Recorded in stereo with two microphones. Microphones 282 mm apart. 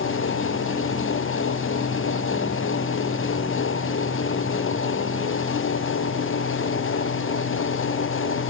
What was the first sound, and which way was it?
Only background noise.